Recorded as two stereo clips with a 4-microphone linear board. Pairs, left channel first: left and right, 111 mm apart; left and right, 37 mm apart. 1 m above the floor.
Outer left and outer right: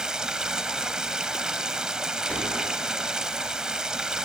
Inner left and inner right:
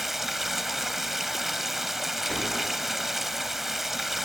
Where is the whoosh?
15° left (ahead or behind), 8 m.